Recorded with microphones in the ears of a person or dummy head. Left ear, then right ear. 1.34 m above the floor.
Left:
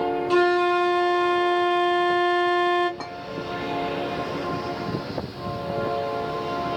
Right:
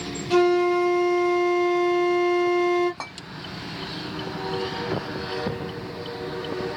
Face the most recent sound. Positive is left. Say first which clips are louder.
# even
turn(degrees=-10)  # may be behind; listen again after turning